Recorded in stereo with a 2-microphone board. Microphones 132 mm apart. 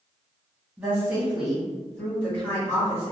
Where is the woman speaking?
15° right (ahead or behind), 1.7 m; by 3.1 s 25° left (ahead or behind), 1.9 m.